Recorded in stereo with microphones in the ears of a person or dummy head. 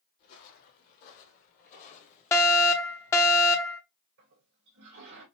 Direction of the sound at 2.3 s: 15° left (ahead or behind).